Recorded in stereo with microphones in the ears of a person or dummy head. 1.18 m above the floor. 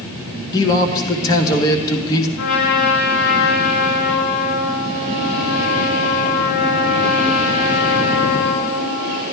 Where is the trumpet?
75° left (ahead or behind), 5 m.